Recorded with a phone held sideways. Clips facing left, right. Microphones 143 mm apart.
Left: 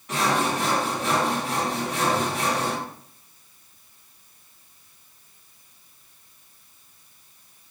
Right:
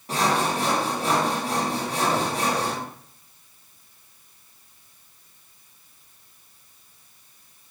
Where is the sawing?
35° right (ahead or behind), 0.8 m.